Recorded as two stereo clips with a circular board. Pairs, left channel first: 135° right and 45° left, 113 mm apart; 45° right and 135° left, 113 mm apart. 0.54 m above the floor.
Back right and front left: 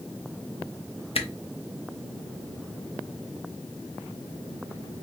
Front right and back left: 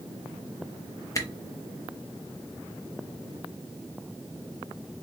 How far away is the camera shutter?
About 0.8 m.